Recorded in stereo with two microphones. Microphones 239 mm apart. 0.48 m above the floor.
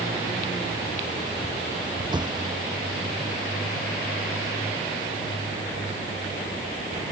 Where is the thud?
20° right (ahead or behind).